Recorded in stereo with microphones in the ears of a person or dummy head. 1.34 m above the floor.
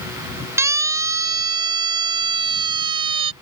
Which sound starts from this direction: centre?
A siren, at 0.6 s.